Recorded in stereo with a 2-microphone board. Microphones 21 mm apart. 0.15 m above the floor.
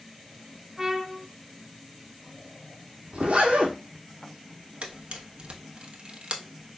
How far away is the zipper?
About 1.0 m.